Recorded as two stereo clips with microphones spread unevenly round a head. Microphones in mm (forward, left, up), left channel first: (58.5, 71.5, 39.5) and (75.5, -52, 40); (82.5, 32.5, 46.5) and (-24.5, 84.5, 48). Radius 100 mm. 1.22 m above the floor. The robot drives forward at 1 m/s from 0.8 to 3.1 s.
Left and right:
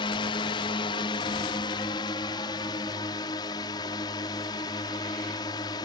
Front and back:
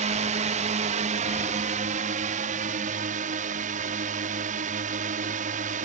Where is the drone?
155° left; by 5.8 s 165° left.